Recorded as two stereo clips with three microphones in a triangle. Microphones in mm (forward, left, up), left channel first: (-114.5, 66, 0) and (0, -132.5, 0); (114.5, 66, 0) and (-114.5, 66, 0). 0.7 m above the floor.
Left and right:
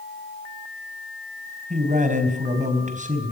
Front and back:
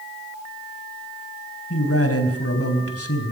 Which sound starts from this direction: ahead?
A man speaking, at 1.7 s.